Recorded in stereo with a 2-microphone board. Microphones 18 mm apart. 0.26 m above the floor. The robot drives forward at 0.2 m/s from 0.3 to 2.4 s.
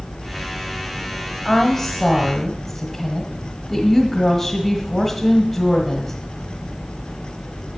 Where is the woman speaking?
20° left (ahead or behind), 1.4 m.